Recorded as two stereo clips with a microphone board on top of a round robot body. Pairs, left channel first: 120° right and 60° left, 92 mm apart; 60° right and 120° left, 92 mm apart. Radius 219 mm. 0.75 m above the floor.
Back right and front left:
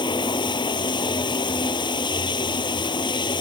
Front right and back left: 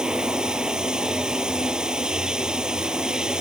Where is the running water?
160° right.